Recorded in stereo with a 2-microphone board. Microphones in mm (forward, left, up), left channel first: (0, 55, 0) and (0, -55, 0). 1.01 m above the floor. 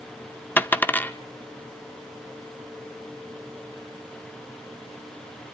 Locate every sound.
0.6 s a dropped coin: 15° left (ahead or behind), 0.6 m